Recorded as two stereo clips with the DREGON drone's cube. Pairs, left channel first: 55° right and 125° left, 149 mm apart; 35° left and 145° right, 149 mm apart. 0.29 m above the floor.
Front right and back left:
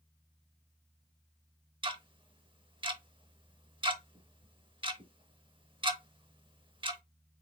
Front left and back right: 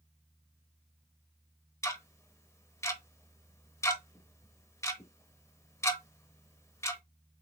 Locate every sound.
1.8 s ticking: 95° left, 0.7 m